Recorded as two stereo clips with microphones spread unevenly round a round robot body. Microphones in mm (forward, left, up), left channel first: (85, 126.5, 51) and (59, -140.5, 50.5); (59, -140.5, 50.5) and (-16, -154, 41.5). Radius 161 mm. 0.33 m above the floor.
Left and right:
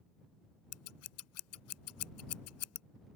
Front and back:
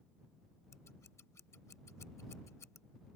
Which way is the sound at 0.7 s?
70° left.